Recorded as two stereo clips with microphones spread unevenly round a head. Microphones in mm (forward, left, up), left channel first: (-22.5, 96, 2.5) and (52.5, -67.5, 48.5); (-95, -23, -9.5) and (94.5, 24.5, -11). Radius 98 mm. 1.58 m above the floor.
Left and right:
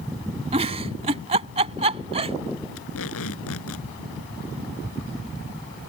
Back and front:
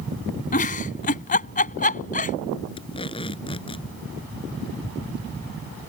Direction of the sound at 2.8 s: 125° left.